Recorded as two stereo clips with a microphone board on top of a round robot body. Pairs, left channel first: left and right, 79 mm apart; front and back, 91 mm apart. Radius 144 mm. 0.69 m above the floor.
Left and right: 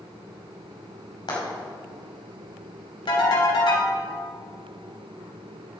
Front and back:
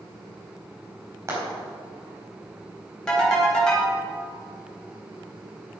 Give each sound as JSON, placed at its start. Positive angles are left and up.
{"t": 1.3, "sound": "frying", "azimuth_deg": 120, "distance_m": 4.5}
{"t": 3.1, "sound": "a ringtone", "azimuth_deg": 80, "distance_m": 4.0}